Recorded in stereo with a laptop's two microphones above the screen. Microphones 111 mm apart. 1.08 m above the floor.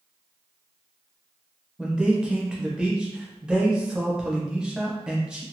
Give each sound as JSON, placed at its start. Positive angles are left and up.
{"t": 1.8, "sound": "a man speaking", "side_deg": -5, "distance_m": 0.7}